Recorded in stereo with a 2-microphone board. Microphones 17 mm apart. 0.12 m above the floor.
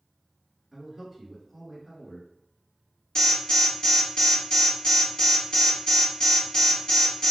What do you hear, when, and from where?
0.7 s a man speaking: 15° left (ahead or behind), 1.3 m
3.1 s an alarm: 60° left (ahead or behind), 1.6 m